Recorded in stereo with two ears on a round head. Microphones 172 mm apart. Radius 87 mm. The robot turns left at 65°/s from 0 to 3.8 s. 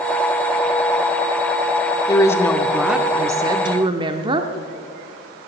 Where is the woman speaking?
20° left (ahead or behind), 0.7 m; by 4.5 s 25° right (ahead or behind), 0.7 m.